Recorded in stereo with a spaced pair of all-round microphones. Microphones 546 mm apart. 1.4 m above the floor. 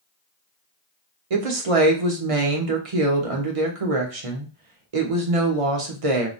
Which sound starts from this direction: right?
A woman speaking, at 1.3 s.